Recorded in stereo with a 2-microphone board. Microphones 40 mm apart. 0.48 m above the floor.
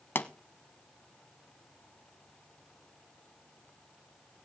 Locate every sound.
0.1 s a pop: 65° left (ahead or behind), 0.7 m